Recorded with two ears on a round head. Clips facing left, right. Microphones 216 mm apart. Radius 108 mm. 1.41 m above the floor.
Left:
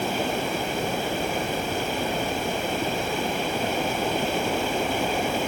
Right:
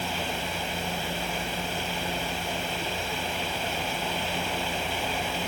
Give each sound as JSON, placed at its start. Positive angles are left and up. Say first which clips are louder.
{"t": 0.0, "sound": "running water", "louder": "left 7 dB", "side_deg": 45}